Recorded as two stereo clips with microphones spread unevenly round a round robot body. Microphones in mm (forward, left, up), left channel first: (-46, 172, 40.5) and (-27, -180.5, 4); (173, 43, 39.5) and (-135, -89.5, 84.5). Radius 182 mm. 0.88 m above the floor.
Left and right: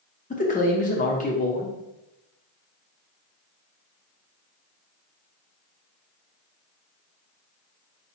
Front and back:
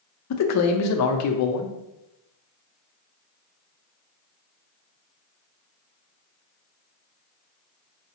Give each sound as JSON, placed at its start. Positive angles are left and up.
{"t": 0.3, "sound": "a man speaking", "azimuth_deg": 25, "distance_m": 0.6}